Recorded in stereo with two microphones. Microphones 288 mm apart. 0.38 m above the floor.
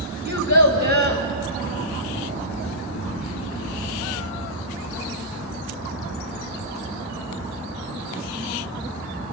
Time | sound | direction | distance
0.2 | a child speaking | 65° left (ahead or behind) | 1.4 m